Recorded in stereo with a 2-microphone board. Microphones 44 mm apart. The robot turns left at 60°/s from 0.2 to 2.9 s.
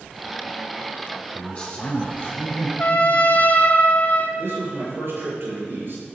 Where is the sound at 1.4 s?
150° left, 2.0 m; by 2.7 s 70° left, 2.0 m.